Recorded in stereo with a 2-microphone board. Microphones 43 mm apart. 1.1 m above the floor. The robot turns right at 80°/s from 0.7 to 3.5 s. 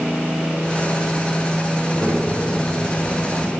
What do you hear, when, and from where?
1.8 s a child speaking: 170° right, 5.5 m; by 3.5 s 35° right, 5.5 m